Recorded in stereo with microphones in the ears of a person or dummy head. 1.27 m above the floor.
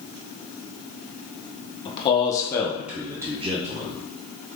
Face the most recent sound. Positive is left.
turn(degrees=-35)  # may be behind; listen again after turning